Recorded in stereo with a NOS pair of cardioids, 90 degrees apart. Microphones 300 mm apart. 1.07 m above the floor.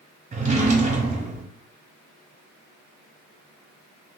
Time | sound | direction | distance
0.3 | a drawer | 25° right | 0.8 m